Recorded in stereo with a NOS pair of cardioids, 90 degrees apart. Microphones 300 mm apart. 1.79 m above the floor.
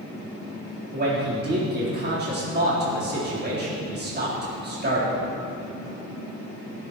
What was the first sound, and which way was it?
A man speaking, 35° right.